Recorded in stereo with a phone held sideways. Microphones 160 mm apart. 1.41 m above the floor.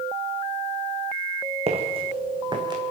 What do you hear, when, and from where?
1.7 s footsteps: 40° right (ahead or behind), 4 m; by 2.8 s 25° right (ahead or behind), 4 m